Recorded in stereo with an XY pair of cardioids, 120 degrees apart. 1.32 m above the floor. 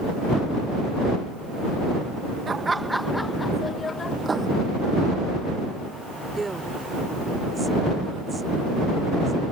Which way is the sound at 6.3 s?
20° right.